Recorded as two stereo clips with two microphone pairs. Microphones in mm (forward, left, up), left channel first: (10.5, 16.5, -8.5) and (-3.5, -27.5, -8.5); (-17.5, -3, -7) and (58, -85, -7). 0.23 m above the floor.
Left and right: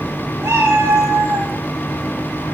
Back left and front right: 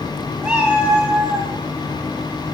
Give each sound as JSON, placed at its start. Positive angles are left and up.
{"t": 0.4, "sound": "a cat meowing", "azimuth_deg": -130, "distance_m": 3.5}